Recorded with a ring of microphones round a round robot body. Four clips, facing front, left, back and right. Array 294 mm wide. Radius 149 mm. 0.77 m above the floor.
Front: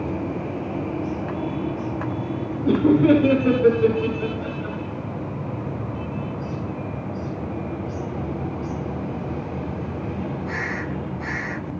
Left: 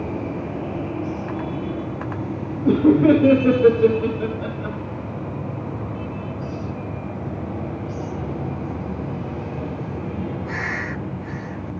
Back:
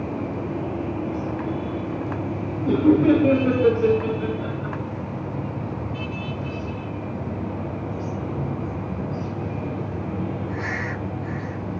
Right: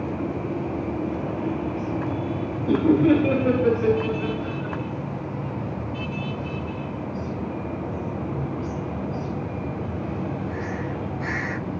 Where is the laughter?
75° left, 4.5 m; by 4.8 s 90° left, 4.5 m.